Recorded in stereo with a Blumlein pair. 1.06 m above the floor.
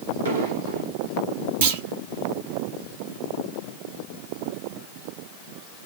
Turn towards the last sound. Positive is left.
turn(degrees=-55)